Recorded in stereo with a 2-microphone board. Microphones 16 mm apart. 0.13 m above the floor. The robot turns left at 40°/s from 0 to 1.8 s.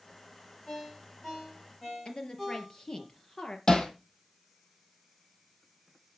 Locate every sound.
0.7 s a ringtone: 55° left (ahead or behind), 4.5 m; by 3.0 s 10° left (ahead or behind), 4.5 m
2.0 s a woman speaking: 55° left (ahead or behind), 3 m
3.7 s hammering: 50° left (ahead or behind), 2 m